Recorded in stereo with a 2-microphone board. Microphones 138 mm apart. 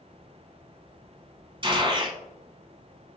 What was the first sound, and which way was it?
A gunshot, 35° right (ahead or behind).